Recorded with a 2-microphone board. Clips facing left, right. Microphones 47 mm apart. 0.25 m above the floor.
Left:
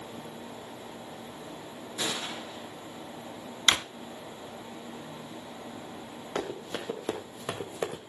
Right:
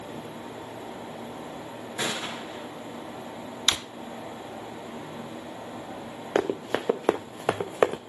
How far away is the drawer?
About 0.7 m.